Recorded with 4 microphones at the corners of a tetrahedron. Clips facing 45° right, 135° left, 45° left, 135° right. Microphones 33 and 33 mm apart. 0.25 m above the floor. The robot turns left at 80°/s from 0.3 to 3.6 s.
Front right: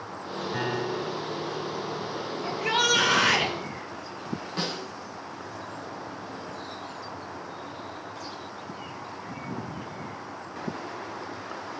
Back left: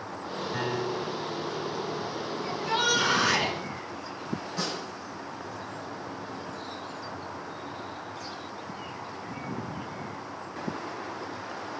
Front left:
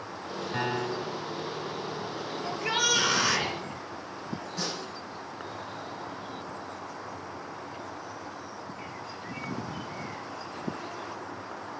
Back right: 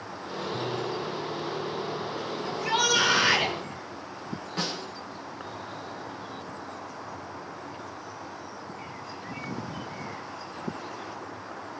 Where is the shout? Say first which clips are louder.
Front right 3 dB, back right 2 dB; 10° right, 6.5 m; by 3.6 s 100° right, 6.5 m.